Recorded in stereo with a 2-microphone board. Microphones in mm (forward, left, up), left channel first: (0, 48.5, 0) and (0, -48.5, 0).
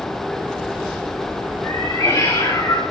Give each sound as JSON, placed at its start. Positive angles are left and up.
{"t": 1.6, "sound": "a cat meowing", "side_deg": 35, "distance_m": 9.5}